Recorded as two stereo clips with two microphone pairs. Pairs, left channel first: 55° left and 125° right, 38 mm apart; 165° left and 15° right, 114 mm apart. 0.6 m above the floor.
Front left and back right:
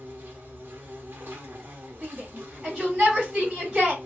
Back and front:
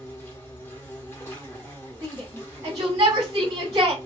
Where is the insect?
125° right, 1.0 m.